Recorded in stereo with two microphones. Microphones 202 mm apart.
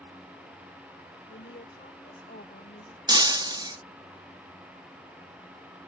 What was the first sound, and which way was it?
A woman speaking, 60° left (ahead or behind).